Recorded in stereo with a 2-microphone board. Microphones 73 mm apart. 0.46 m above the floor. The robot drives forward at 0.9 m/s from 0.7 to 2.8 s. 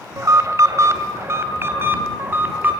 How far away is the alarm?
About 2 m.